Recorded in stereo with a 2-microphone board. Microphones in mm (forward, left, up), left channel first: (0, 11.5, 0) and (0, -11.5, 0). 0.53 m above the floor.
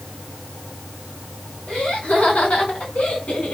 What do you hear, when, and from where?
1.7 s laughter: 80° left, 5.5 m; by 3.5 s 75° left (ahead or behind), 4 m